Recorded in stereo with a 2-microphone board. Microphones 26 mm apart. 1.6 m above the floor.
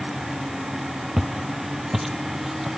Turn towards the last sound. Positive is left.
turn(degrees=-10)  # may be behind; listen again after turning